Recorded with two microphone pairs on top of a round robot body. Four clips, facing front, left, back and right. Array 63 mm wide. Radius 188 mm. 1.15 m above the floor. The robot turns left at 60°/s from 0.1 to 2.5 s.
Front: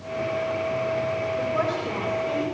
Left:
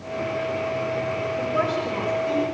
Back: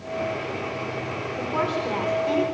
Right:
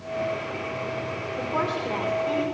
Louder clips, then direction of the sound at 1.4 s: Left 1 dB, even; 115° right.